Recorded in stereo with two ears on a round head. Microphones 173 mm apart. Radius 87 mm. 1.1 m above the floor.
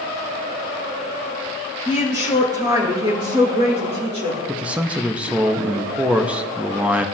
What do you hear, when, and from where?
1.9 s a woman speaking: 15° right (ahead or behind), 3 m; by 4.4 s 40° right (ahead or behind), 3.5 m
4.5 s a man speaking: 5° right (ahead or behind), 0.7 m